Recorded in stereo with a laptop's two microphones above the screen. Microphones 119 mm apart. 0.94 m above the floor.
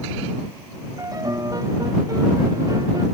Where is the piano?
30° right (ahead or behind).